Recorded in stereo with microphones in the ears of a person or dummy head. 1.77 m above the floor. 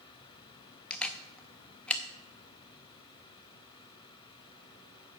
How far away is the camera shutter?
About 0.6 m.